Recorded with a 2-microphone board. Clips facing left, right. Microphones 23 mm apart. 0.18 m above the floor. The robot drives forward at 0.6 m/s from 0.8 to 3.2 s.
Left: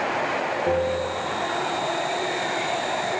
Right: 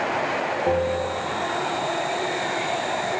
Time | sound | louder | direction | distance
0.7 | a bell | right 1 dB | 10° right (ahead or behind) | 2.5 m